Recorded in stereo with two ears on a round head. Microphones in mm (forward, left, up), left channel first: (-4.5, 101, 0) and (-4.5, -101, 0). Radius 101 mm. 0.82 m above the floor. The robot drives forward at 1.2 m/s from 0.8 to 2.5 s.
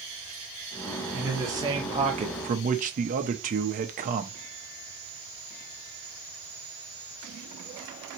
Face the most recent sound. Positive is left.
turn(degrees=-35)  # may be behind; listen again after turning